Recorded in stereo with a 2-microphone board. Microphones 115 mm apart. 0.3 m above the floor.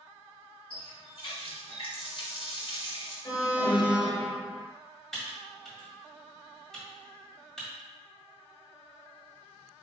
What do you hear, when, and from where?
0.7 s a running tap: 55° left (ahead or behind), 1.4 m
3.2 s an alarm: 40° left (ahead or behind), 0.7 m
5.1 s typing on a keyboard: 5° left (ahead or behind), 1.8 m